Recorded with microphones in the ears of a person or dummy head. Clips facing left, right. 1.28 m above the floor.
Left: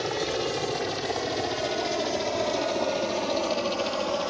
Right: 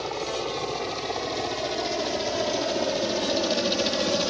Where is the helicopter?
15° left (ahead or behind); by 4.3 s 25° right (ahead or behind).